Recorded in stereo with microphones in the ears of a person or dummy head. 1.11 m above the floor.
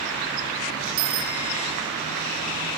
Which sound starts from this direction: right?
A bicycle bell, at 1.0 s.